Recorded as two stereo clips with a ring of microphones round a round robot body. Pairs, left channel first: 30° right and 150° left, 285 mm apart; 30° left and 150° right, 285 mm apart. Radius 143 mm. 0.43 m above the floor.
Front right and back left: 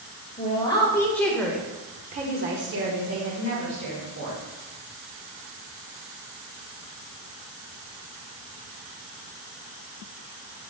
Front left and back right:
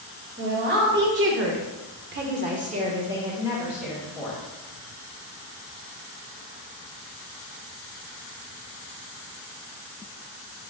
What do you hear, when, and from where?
0.4 s a woman speaking: 100° right, 2 m; by 4.4 s 120° left, 2.5 m